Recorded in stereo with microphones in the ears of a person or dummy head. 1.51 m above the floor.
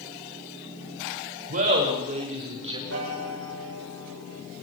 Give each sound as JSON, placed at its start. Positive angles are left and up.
{"t": 1.5, "sound": "laughter", "side_deg": -45, "distance_m": 6.0}
{"t": 2.9, "sound": "a piano", "side_deg": -85, "distance_m": 7.0}